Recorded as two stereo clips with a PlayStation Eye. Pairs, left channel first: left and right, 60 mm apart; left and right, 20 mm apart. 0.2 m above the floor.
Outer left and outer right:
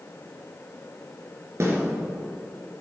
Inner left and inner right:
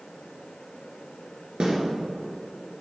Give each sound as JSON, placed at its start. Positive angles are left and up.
{"t": 1.6, "sound": "a snare drum", "side_deg": -55, "distance_m": 3.0}